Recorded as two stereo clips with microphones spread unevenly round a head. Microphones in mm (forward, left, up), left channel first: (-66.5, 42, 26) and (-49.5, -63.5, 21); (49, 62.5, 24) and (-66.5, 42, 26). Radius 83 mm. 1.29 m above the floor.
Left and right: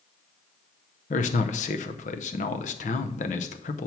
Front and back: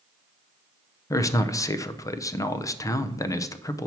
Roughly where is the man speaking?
Left.